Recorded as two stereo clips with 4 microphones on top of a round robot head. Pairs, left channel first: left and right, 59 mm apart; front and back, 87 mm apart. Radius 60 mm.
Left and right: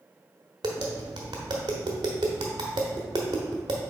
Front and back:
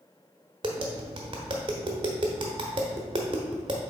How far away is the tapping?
About 0.8 m.